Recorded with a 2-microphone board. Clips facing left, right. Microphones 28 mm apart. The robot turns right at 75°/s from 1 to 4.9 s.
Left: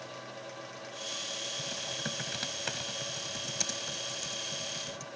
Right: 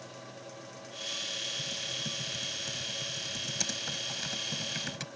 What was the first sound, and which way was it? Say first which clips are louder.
Typing on a keyboard: right 1 dB; 30° left.